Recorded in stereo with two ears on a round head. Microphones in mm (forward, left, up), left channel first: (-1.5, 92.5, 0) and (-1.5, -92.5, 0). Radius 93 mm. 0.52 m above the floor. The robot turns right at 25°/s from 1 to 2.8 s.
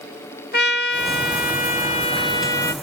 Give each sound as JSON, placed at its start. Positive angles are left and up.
{"t": 0.5, "sound": "a trumpet", "azimuth_deg": 125, "distance_m": 1.9}